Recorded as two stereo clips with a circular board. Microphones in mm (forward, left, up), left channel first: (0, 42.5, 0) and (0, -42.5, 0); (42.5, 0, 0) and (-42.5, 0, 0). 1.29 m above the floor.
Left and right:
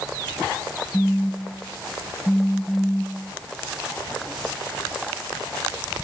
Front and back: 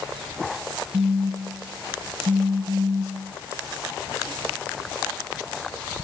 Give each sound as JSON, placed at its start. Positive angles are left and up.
{"t": 0.9, "sound": "a phone buzzing", "azimuth_deg": 160}